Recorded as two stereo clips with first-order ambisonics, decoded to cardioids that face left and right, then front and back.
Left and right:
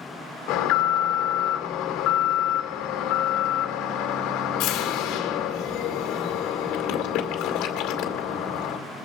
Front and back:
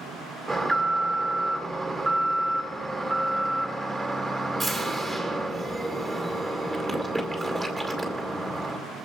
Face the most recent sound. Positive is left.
turn(degrees=100)